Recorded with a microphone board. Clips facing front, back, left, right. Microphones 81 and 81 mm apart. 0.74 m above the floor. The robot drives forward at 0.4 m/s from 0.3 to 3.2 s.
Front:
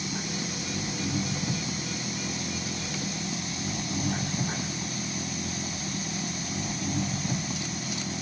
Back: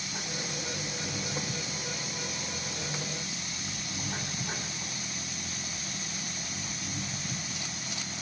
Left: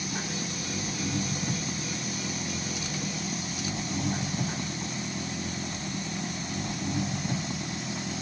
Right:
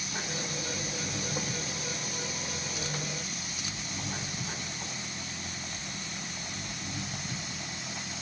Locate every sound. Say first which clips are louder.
0.0 s an engine running: front 5 dB, left 3 dB; 35° left; by 8.2 s 45° left